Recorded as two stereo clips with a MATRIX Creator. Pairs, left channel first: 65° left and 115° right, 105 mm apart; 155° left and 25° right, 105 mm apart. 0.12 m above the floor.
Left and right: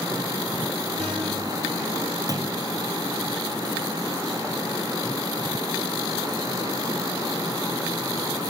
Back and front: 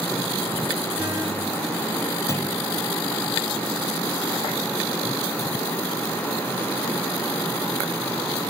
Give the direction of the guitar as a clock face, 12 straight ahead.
3 o'clock.